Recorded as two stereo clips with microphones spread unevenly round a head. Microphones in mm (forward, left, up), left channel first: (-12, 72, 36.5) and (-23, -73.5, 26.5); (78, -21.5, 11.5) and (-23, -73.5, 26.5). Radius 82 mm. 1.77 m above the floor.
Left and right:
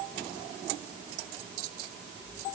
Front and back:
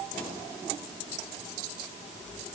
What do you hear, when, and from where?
Only background noise.